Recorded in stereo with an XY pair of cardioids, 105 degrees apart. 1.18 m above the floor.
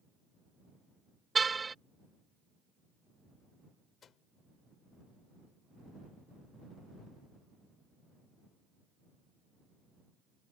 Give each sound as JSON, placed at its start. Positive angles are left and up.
{"t": 1.4, "sound": "a car horn", "azimuth_deg": -25}
{"t": 4.0, "sound": "a microwave", "azimuth_deg": 50}